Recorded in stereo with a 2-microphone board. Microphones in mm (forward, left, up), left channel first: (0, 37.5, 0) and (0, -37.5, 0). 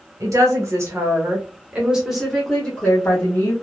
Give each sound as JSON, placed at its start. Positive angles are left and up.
{"t": 0.2, "sound": "a woman speaking", "side_deg": -45, "distance_m": 1.3}